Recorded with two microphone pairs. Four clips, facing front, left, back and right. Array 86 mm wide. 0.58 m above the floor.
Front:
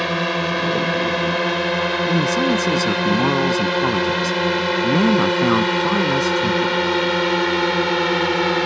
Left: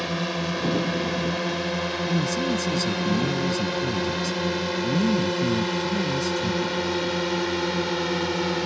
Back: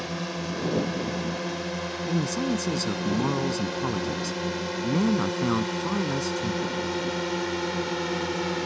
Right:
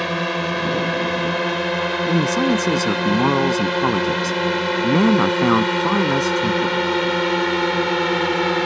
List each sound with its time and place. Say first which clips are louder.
0.0 s a drone: right 5 dB, front 11 dB; 25° right; by 8.7 s 35° right
2.1 s a man speaking: right 8 dB, front 6 dB; 60° right